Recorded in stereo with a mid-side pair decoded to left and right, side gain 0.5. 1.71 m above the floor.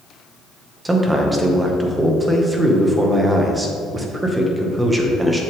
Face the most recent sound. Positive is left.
turn(degrees=-15)